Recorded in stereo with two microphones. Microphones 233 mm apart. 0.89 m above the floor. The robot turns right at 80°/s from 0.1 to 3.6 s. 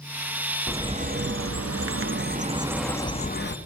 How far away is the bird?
About 0.7 m.